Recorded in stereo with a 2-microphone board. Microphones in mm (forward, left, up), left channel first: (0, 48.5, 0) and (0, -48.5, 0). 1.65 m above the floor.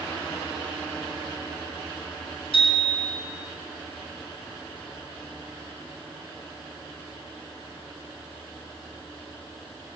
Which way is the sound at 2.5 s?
70° left (ahead or behind).